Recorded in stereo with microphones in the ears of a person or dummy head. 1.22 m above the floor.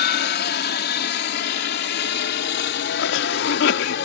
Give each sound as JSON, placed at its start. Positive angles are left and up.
{"t": 0.0, "sound": "a helicopter", "side_deg": 45}
{"t": 3.0, "sound": "a cough", "side_deg": 65}